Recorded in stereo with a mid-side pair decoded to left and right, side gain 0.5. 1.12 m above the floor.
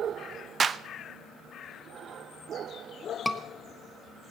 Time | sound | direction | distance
0.6 | a clap | 40° right | 0.7 m
3.2 | a scream | 5° left | 1.4 m